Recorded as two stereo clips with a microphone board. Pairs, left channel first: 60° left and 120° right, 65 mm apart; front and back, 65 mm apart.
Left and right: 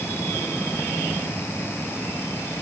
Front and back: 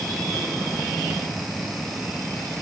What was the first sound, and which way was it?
Only background noise.